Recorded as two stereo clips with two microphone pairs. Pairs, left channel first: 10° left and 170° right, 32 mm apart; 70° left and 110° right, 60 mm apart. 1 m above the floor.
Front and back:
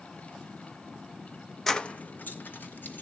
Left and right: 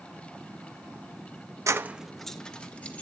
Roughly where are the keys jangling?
Right.